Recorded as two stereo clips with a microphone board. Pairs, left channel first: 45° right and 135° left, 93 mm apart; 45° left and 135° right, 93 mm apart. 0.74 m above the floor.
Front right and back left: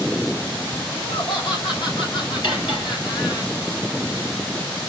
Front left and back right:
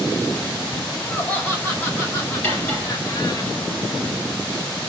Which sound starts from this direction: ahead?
Cutlery clinking, at 2.4 s.